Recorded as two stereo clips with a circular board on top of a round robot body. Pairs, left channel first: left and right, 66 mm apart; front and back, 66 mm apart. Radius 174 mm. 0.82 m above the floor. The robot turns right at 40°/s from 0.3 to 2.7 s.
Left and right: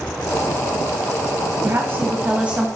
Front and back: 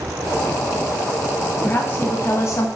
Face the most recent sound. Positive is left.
turn(degrees=-15)